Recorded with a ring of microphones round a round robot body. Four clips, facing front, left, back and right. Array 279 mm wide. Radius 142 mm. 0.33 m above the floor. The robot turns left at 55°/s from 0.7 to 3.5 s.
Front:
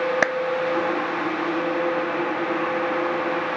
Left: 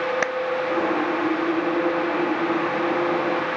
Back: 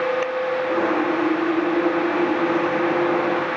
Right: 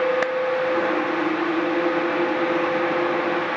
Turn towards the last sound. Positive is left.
turn(degrees=-150)